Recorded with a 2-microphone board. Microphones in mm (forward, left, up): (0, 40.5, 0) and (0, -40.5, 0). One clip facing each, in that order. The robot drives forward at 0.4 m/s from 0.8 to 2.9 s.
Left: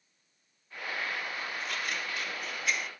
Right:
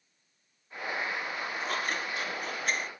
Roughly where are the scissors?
Right.